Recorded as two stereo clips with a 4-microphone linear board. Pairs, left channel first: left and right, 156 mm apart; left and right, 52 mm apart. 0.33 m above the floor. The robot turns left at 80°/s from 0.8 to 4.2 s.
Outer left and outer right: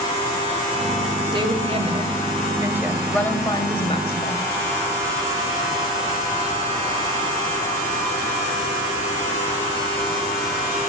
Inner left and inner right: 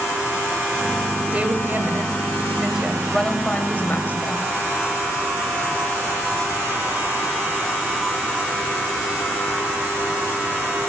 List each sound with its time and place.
1.3 s a woman speaking: 45° right, 1.8 m; by 4.5 s 85° left, 1.8 m